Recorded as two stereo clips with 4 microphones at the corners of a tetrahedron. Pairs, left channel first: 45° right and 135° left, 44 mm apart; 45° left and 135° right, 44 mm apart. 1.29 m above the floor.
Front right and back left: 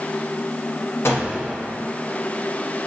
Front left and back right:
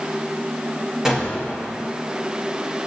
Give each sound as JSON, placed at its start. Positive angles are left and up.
{"t": 1.1, "sound": "a gunshot", "azimuth_deg": -60, "distance_m": 2.0}